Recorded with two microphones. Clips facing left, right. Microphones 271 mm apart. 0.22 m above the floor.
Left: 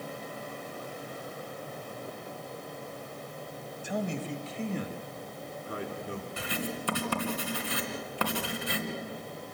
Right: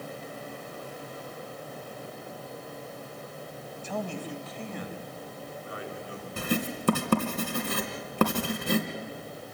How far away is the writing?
About 2.5 m.